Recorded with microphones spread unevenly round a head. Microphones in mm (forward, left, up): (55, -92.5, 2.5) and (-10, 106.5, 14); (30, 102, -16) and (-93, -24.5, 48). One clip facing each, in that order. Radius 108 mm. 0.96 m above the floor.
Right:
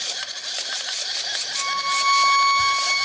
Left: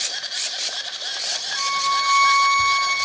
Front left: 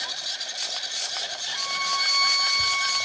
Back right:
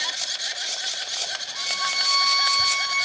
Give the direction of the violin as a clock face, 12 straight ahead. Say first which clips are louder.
Left 3 dB, even; 12 o'clock.